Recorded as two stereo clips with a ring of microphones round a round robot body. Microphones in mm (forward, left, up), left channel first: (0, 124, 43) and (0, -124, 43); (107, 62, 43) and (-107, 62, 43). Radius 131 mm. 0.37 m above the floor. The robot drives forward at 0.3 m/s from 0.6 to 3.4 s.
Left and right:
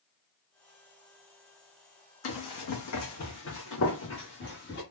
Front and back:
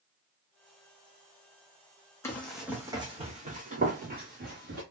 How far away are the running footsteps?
About 1.2 m.